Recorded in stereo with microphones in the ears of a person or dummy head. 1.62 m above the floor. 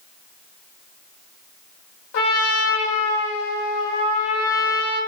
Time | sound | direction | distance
2.1 | a trumpet | 65° left (ahead or behind) | 0.6 m